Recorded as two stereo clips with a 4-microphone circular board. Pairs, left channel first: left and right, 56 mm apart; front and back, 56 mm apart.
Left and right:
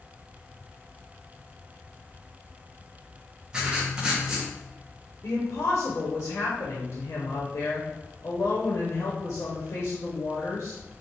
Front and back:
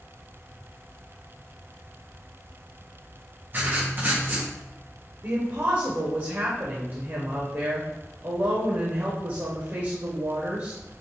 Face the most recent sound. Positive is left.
turn(degrees=140)